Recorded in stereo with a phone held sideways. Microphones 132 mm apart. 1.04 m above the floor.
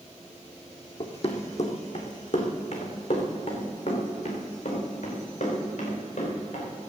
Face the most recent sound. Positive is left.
turn(degrees=75)  # may be behind; listen again after turning